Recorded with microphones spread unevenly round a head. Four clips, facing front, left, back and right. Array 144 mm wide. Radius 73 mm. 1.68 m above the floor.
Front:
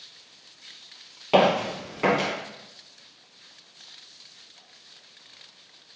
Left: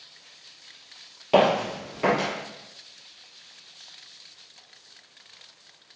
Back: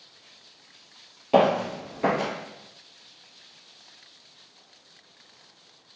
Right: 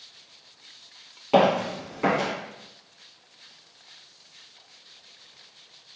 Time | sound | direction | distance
1.3 | footsteps | 5° right | 1.8 m